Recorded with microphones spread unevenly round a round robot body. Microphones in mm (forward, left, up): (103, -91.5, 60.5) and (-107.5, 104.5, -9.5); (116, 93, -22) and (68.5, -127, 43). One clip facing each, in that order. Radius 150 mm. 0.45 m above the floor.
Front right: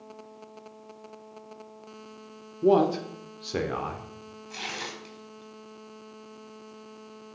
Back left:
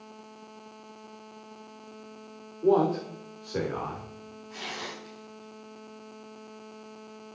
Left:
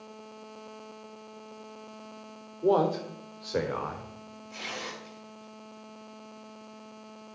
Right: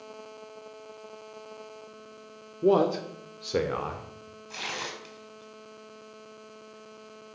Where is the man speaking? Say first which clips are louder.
Front right 1 dB, right 2 dB; 45° right, 1.2 m; by 4.1 s 50° right, 1.8 m.